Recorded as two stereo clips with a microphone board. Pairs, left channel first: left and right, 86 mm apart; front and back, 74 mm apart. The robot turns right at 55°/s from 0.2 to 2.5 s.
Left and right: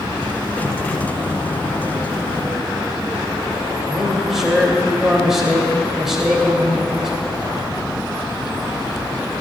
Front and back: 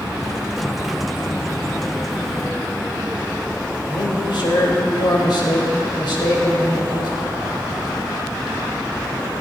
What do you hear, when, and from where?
3.9 s a man speaking: 5° right, 3 m